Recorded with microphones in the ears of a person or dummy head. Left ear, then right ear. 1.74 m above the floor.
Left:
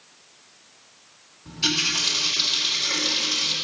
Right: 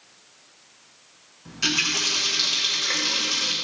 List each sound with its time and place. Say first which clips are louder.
1.4 s a running tap: even; 45° right (ahead or behind), 2.0 m